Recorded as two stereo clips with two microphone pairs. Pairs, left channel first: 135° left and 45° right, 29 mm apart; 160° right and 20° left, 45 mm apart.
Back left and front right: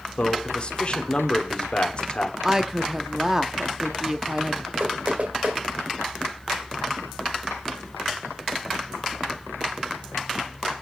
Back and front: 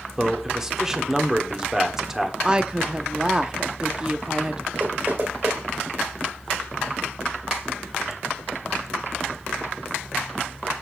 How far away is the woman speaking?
About 0.7 m.